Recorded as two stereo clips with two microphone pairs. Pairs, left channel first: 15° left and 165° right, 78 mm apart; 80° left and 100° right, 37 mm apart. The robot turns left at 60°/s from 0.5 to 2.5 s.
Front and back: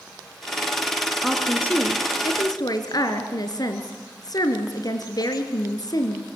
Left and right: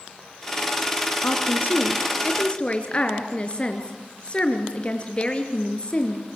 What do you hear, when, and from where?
1.2 s a woman speaking: 105° left, 3 m; by 6.3 s 30° left, 3 m